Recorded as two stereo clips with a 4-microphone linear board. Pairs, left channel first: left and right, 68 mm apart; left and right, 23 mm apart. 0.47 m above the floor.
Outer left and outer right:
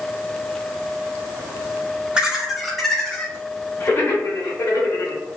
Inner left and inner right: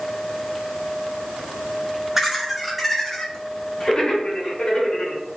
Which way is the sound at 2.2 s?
15° right (ahead or behind).